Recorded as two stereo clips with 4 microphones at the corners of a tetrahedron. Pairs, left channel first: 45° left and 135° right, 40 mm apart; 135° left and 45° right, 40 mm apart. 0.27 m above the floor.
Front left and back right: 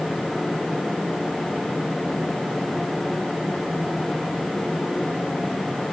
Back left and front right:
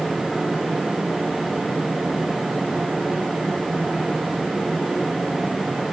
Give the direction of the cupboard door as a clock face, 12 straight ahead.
I don't hear a cupboard door.